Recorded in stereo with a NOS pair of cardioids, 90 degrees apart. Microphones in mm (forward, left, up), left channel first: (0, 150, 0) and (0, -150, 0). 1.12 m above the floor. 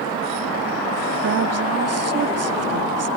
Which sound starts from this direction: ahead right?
A woman speaking, at 1.2 s.